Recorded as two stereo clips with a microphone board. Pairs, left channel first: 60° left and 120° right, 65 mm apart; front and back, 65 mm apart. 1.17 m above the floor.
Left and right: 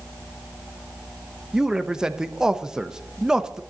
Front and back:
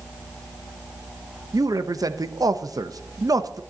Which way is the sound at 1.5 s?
160° left.